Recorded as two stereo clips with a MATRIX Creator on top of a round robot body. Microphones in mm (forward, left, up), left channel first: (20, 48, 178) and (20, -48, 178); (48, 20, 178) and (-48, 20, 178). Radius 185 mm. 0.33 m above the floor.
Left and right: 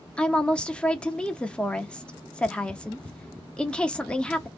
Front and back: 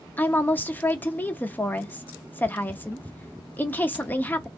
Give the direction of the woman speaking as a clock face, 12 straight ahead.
11 o'clock.